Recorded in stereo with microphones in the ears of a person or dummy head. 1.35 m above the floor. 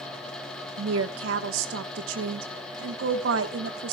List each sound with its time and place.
0.8 s a woman speaking: 85° right, 1.3 m